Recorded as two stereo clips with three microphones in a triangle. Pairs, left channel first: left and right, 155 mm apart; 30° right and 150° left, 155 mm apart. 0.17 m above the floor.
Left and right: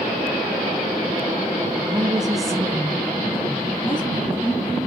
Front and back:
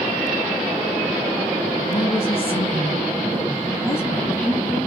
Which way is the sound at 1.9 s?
10° right.